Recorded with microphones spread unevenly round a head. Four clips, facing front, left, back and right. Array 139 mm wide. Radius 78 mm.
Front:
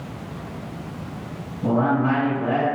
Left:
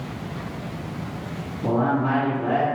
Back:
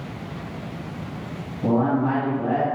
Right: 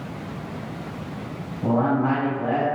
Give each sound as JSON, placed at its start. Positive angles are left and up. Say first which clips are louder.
{"t": 1.6, "sound": "a man speaking", "louder": "right 1 dB, even", "azimuth_deg": -115, "distance_m": 1.3}